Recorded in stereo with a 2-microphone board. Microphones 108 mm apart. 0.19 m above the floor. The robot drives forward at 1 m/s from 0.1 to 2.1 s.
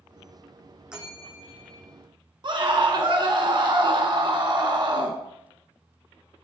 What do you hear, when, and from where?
0.9 s a bell: 10° right (ahead or behind), 2 m; by 1.9 s 5° right (ahead or behind), 3 m
2.4 s a scream: 50° right (ahead or behind), 1.6 m